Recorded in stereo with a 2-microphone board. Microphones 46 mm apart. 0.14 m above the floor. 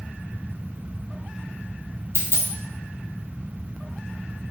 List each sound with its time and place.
2.1 s a dropped coin: 80° left, 0.7 m